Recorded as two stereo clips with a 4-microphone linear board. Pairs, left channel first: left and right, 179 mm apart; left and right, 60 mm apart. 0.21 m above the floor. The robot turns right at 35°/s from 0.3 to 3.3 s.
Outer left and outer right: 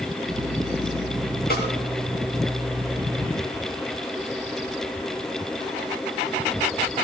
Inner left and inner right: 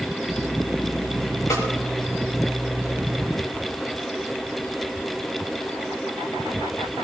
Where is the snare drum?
55° left (ahead or behind), 2.5 m; by 1.7 s 50° left (ahead or behind), 2.5 m.